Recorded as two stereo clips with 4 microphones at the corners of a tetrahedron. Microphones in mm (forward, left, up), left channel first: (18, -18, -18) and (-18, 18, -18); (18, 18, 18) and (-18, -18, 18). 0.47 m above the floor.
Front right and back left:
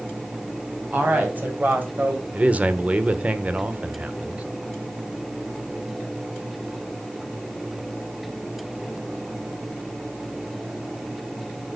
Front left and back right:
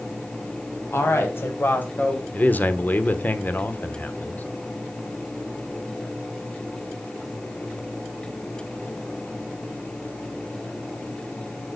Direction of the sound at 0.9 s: 80° left.